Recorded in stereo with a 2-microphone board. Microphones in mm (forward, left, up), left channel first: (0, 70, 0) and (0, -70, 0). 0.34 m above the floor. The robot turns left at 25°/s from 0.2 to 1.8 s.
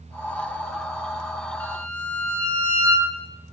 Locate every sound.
1.6 s a violin: 15° left (ahead or behind), 4.5 m; by 3.1 s 10° left (ahead or behind), 4.5 m